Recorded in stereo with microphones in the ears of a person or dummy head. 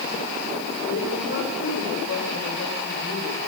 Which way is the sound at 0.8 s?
60° left (ahead or behind).